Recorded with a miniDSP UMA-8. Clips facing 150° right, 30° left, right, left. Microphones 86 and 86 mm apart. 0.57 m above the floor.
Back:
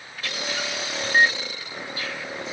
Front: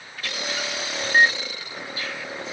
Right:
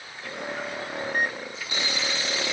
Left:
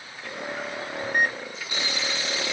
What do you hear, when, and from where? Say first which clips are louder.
1.0 s a microwave: front 1 dB, left 3 dB; 95° left